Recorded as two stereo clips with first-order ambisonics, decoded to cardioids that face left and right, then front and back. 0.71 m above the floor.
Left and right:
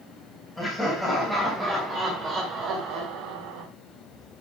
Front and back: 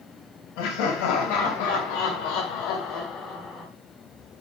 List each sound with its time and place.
0.6 s laughter: 5° left, 3.5 m; by 3.7 s 75° right, 1.9 m